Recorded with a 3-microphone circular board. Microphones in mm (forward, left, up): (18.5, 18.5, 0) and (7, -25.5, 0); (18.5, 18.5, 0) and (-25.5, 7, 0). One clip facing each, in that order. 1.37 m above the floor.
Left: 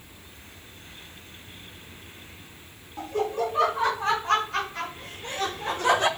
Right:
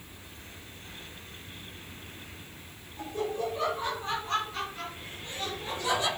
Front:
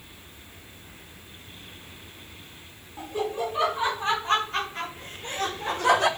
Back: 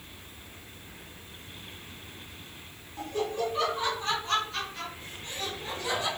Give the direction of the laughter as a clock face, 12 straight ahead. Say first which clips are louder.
Left 5 dB, front 2 dB; 9 o'clock.